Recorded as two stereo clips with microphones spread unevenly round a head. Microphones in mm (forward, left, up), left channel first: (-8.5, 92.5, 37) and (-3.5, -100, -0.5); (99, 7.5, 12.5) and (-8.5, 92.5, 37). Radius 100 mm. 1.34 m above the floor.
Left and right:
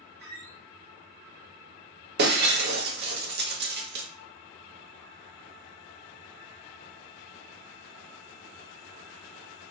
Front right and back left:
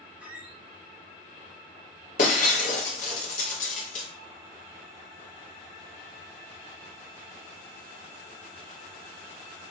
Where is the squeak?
135° right, 2.5 m.